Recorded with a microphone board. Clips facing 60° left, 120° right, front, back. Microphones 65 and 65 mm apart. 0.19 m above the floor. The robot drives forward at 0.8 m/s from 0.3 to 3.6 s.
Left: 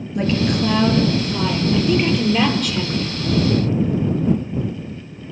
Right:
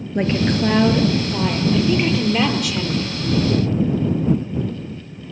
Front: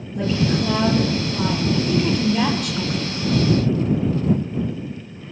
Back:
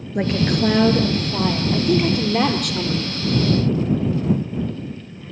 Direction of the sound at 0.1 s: 170° right.